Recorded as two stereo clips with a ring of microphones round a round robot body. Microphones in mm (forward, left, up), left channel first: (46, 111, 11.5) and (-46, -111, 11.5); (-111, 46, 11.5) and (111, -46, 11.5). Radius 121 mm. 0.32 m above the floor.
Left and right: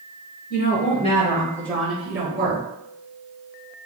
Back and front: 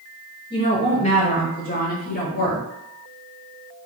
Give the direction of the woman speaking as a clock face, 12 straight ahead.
9 o'clock.